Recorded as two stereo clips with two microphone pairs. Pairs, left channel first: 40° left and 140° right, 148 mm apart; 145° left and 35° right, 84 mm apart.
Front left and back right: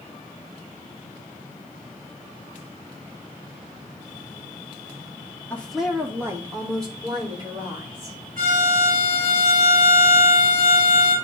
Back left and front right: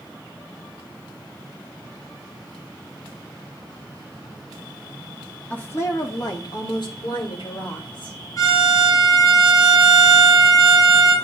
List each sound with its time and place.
5.5 s a woman speaking: 100° left, 0.8 m; by 8.2 s 165° left, 3 m
8.4 s a violin: 175° right, 4 m